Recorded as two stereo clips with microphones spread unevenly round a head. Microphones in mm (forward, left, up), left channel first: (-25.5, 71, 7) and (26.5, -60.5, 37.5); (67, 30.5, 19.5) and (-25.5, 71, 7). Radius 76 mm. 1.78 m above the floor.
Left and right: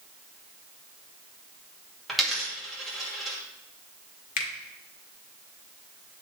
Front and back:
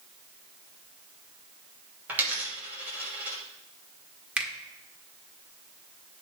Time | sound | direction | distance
2.1 | a dropped coin | 130° right | 1.2 m
4.4 | a finger snap | 75° left | 1.5 m